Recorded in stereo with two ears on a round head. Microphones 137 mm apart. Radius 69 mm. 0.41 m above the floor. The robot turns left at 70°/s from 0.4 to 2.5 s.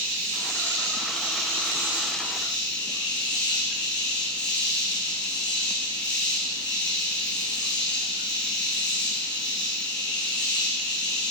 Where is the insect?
60° right, 7.5 m; by 11.3 s 150° left, 7.5 m.